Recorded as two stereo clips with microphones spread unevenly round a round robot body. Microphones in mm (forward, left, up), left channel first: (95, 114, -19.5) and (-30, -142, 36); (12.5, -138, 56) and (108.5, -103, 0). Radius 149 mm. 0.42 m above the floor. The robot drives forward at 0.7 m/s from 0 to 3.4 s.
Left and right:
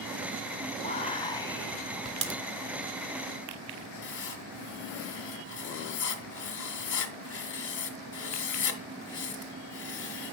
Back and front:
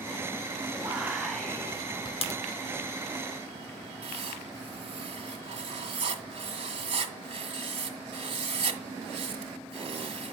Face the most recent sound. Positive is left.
turn(degrees=20)